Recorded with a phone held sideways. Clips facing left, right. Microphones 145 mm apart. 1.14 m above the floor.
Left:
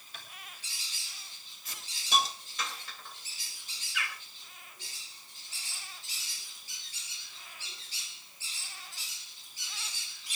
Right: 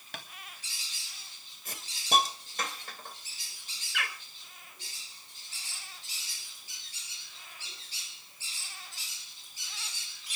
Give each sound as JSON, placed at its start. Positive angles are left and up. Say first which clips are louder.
{"t": 0.1, "sound": "tapping", "louder": "right 6 dB", "side_deg": -75, "distance_m": 2.5}
{"t": 1.6, "sound": "a hiss", "louder": "right 4 dB", "side_deg": -50, "distance_m": 2.0}
{"t": 3.9, "sound": "a bird", "louder": "right 2 dB", "side_deg": -65, "distance_m": 2.5}